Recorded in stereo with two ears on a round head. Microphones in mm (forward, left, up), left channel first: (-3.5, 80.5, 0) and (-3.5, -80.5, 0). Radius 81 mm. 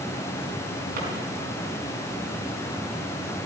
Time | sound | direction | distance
1.0 | a drawer | 55° right (ahead or behind) | 4.5 m